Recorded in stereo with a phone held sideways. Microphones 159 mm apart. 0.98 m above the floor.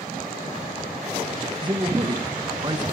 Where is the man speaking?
30° right (ahead or behind), 0.7 m.